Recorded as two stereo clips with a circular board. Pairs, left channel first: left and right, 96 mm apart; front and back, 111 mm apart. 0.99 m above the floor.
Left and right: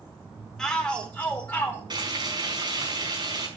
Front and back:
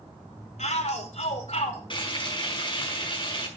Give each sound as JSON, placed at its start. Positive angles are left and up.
{"t": 0.6, "sound": "a shout", "azimuth_deg": 5, "distance_m": 4.0}
{"t": 1.9, "sound": "frying", "azimuth_deg": -45, "distance_m": 5.0}